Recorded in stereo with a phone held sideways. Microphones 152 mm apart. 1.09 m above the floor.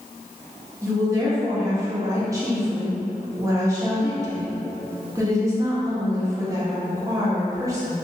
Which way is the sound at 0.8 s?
20° right (ahead or behind).